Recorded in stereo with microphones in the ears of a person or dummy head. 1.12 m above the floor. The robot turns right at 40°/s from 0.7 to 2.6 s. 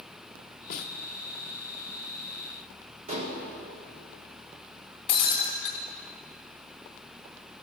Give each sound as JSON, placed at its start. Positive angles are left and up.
{"t": 0.7, "sound": "a snare drum", "side_deg": 55, "distance_m": 0.6}
{"t": 3.1, "sound": "dishes clattering", "side_deg": -45, "distance_m": 1.6}
{"t": 5.1, "sound": "breaking glass", "side_deg": 30, "distance_m": 1.3}